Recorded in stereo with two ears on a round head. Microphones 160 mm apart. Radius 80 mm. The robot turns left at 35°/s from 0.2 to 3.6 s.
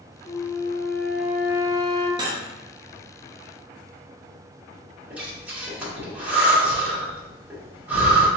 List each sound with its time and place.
0.3 s a flute: 30° left, 0.6 m; by 2.1 s 35° right, 0.6 m
2.2 s cutlery clinking: 25° right (ahead or behind), 0.9 m
5.1 s breathing: 10° right (ahead or behind), 1.5 m